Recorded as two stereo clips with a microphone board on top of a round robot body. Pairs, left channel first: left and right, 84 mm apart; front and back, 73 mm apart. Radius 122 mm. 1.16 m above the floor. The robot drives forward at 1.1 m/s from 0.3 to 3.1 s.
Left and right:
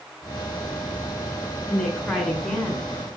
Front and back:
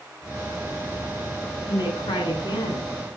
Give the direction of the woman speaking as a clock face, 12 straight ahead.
12 o'clock.